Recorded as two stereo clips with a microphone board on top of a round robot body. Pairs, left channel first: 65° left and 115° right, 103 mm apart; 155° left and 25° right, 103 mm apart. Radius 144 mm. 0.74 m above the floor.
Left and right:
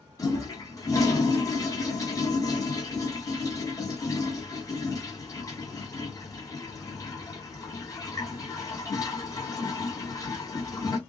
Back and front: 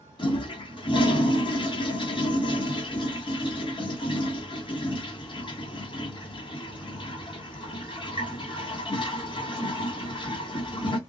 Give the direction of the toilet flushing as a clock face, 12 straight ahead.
8 o'clock.